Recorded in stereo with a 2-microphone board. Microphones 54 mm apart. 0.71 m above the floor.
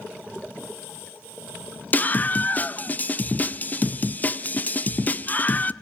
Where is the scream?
30° left (ahead or behind), 0.6 m.